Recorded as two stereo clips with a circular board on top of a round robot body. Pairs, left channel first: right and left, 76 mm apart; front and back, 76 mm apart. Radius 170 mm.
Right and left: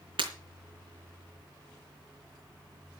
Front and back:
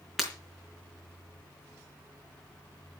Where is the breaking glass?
90° left, 3 m.